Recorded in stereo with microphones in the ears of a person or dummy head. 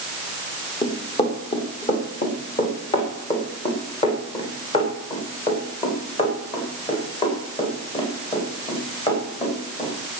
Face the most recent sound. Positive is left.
turn(degrees=35)  # may be behind; listen again after turning